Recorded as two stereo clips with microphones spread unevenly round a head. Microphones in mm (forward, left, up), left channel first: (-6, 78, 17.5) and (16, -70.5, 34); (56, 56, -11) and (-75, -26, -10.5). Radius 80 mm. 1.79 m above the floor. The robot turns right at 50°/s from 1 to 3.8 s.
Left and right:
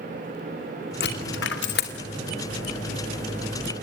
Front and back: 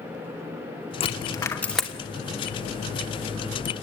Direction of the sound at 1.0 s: 80° left.